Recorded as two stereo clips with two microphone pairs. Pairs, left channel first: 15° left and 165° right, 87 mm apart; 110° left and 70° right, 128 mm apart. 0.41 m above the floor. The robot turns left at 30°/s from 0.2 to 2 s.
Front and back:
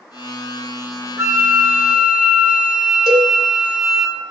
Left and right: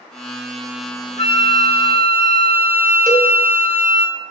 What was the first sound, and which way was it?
A flute, 135° left.